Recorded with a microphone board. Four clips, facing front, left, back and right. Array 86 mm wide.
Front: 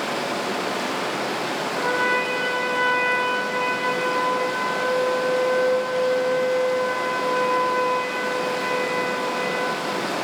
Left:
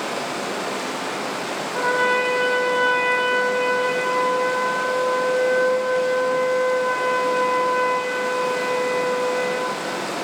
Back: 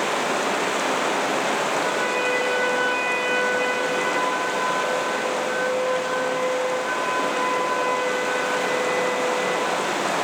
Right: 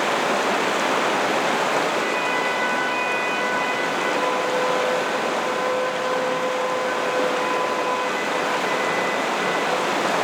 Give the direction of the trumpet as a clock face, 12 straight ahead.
10 o'clock.